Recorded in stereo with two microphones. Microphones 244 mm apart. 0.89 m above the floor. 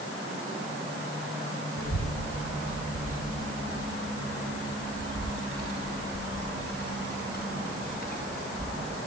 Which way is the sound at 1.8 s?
85° left.